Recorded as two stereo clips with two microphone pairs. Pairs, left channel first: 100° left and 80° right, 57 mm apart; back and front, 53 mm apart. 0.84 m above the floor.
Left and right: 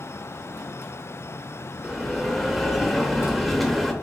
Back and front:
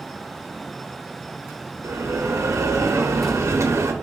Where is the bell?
15° left, 0.6 m.